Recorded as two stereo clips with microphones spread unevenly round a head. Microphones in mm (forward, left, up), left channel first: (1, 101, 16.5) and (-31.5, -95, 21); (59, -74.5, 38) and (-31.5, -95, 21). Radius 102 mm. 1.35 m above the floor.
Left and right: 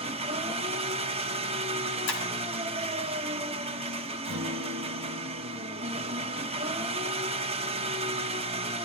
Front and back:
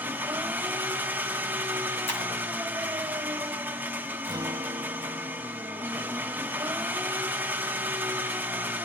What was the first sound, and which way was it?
An engine running, 95° right.